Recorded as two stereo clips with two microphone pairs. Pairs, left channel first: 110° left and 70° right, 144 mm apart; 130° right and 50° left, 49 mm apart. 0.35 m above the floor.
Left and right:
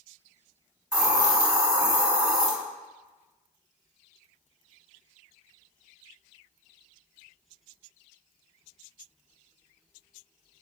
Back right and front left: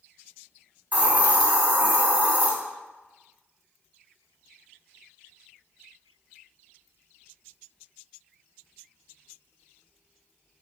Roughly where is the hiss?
Ahead.